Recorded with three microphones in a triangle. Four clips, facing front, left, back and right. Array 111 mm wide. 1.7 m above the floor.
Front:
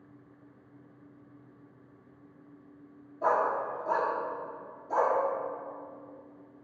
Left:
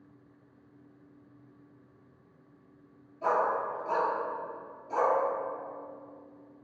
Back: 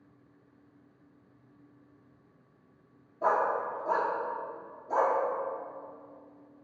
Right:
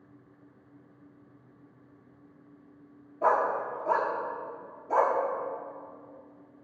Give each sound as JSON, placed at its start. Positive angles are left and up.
{"t": 3.2, "sound": "a dog barking", "azimuth_deg": -90, "distance_m": 1.4}